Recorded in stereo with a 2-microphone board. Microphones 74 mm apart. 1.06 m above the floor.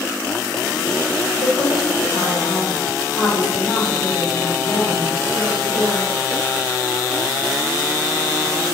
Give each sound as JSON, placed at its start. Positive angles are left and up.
{"t": 1.4, "sound": "a woman speaking", "side_deg": 60, "distance_m": 2.0}